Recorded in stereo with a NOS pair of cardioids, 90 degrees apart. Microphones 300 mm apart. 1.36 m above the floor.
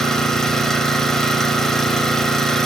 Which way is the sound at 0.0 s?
Straight ahead.